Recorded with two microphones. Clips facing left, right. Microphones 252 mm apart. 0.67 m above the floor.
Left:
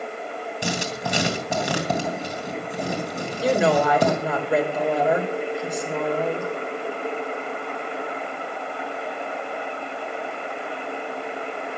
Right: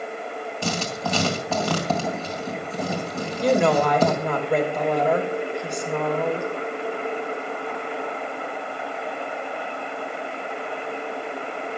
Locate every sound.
0.6 s writing: 15° left (ahead or behind), 3 m
3.4 s a woman speaking: 5° left (ahead or behind), 3 m